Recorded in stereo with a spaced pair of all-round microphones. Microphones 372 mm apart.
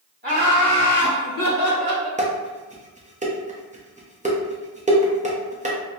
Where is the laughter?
25° right (ahead or behind), 0.7 m; by 2.1 s 80° left, 1.3 m.